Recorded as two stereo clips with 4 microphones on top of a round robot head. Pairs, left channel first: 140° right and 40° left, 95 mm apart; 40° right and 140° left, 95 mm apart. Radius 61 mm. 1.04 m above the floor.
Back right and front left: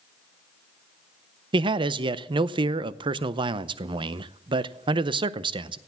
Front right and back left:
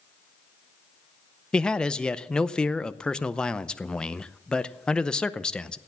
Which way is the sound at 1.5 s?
40° left.